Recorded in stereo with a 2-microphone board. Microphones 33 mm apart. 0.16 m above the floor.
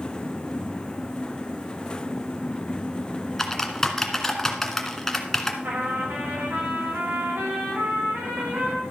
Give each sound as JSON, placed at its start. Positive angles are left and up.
{"t": 3.4, "sound": "typing on a keyboard", "side_deg": 10, "distance_m": 1.5}
{"t": 5.6, "sound": "a trumpet", "side_deg": -85, "distance_m": 4.0}